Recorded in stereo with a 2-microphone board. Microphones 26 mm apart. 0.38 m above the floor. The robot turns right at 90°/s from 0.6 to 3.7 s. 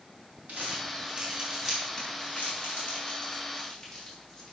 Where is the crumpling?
70° right (ahead or behind), 5 m; by 4.5 s 5° left (ahead or behind), 5 m.